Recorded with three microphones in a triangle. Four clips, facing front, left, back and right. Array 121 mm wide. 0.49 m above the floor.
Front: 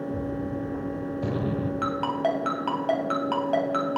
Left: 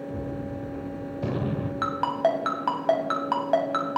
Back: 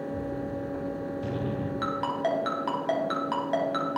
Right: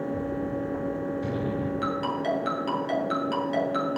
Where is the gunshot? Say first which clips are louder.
Right 4 dB, front 3 dB; 55° left, 1.2 m.